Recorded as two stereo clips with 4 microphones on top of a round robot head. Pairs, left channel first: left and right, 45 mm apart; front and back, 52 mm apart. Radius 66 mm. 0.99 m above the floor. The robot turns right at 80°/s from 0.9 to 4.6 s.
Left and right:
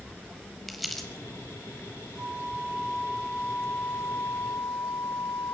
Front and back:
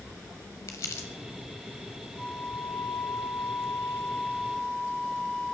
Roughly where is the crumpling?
Ahead.